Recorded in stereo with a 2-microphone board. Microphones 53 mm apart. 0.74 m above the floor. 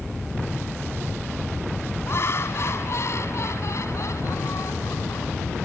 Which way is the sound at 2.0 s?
50° left (ahead or behind).